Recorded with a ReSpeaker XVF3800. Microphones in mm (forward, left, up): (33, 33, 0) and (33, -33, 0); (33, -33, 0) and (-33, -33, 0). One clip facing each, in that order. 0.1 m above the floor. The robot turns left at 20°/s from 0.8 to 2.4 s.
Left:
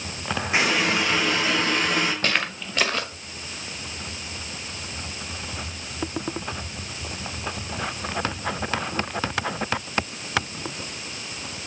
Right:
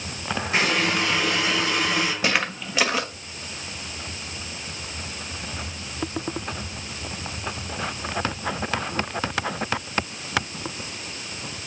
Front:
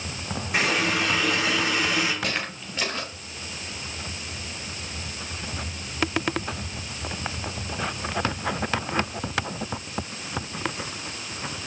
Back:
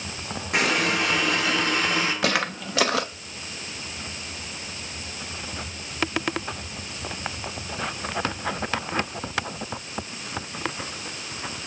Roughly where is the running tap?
Behind.